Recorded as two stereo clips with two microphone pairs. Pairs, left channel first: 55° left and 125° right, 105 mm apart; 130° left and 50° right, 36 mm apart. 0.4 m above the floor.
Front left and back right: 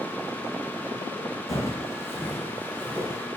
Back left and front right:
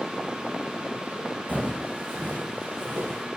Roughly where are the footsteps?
Ahead.